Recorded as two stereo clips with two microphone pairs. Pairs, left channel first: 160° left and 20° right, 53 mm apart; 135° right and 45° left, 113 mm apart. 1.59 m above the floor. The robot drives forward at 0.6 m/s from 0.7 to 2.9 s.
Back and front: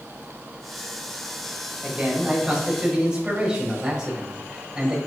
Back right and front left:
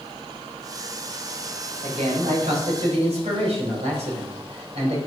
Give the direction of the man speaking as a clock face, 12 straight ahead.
10 o'clock.